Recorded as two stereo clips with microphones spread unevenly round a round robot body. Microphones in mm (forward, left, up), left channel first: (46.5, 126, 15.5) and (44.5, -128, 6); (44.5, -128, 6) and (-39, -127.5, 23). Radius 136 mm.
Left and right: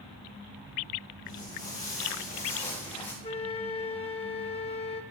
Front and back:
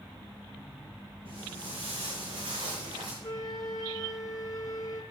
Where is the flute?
25° left, 1.3 m.